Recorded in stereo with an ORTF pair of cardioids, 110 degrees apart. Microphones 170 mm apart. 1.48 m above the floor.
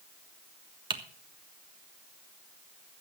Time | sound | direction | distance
0.9 | typing on a keyboard | 30° right | 1.4 m